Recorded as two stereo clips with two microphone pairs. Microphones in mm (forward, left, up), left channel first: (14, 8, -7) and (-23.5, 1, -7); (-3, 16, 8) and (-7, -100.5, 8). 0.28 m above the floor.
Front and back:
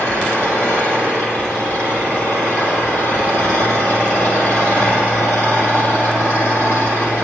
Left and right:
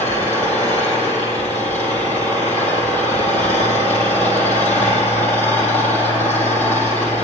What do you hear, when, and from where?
0.0 s an engine running: 10° left, 5 m